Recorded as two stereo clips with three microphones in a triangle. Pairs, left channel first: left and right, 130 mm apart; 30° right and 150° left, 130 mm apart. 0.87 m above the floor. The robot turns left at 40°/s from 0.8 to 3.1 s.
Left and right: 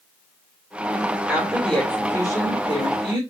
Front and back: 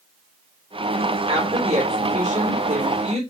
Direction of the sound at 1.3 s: 170° right.